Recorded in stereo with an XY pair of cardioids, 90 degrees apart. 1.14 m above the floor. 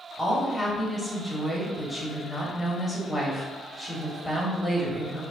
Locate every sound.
0.2 s a woman speaking: 5° left, 1.3 m